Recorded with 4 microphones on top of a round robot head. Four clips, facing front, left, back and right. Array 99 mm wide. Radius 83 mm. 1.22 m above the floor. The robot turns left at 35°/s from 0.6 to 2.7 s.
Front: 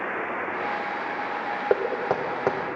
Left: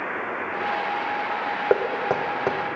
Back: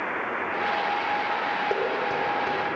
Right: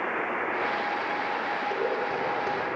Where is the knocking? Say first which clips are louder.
Left 9 dB, front 2 dB; 60° left, 0.7 m; by 2.8 s 25° left, 0.7 m.